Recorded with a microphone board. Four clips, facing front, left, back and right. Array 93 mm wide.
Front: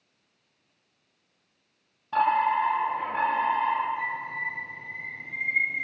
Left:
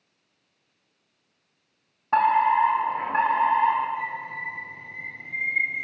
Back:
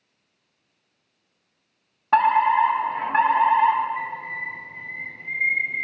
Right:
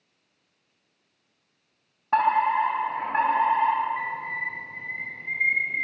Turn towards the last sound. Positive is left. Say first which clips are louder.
# right 1 dB, back 1 dB
turn(degrees=-135)